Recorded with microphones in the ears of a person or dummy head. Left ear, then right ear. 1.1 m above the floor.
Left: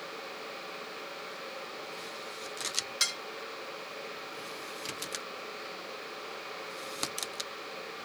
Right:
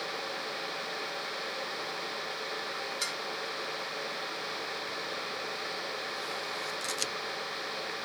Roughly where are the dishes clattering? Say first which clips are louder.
Left 6 dB; left.